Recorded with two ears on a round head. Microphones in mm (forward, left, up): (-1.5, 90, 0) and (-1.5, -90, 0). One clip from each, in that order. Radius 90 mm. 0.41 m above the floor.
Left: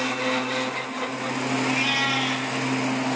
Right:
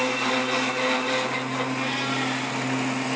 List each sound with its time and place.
1.6 s a cat meowing: 60° left (ahead or behind), 3.5 m